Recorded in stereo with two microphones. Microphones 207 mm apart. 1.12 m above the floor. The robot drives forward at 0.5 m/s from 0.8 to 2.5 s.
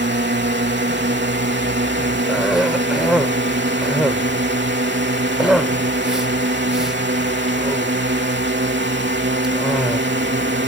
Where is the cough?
5° right (ahead or behind).